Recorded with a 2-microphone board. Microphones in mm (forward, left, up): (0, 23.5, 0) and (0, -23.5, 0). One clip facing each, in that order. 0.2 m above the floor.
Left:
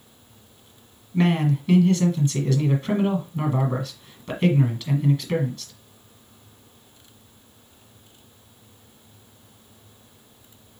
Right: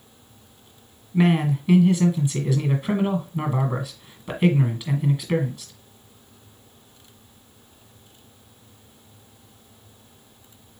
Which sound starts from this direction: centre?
A man speaking, at 1.1 s.